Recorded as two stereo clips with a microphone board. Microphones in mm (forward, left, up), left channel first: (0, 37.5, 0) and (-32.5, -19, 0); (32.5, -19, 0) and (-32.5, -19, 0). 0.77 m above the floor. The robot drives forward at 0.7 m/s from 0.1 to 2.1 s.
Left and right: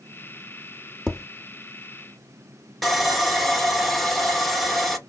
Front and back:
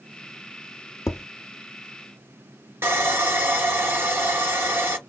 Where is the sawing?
145° left, 0.7 m.